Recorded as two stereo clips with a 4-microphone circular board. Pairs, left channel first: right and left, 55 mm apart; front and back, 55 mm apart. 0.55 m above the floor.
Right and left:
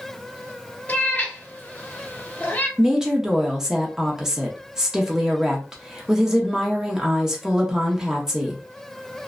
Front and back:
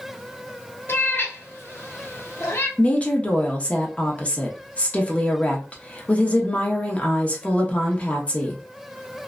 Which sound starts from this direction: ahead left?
A woman speaking, at 2.8 s.